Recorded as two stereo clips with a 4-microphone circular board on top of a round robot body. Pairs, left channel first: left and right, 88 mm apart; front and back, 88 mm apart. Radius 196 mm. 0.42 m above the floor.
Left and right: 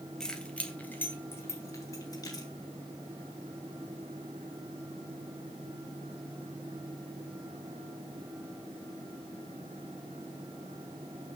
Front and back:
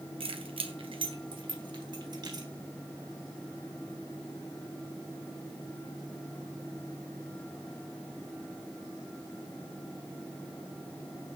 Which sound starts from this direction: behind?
Keys jangling, at 0.2 s.